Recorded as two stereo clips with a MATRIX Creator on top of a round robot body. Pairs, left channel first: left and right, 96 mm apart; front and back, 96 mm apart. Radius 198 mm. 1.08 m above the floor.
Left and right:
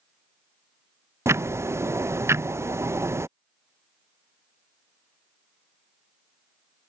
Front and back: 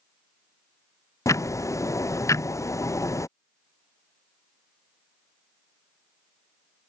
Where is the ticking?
40° right.